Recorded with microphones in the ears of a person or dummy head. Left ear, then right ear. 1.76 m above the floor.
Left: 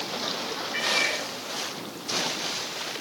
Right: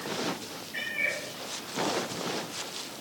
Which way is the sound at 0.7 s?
40° left (ahead or behind).